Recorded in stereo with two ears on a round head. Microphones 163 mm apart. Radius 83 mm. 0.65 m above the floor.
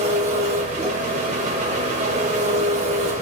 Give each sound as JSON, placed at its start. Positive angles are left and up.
{"t": 0.0, "sound": "an engine running", "side_deg": -40, "distance_m": 0.9}